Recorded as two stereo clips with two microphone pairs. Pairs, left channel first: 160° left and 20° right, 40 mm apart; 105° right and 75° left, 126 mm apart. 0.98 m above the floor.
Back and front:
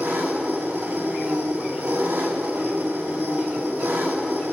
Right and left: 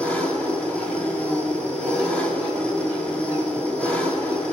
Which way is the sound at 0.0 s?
25° right.